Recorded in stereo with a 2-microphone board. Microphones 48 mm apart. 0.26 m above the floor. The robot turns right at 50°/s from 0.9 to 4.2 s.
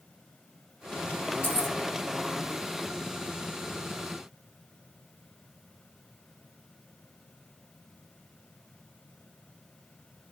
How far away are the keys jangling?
About 1.5 m.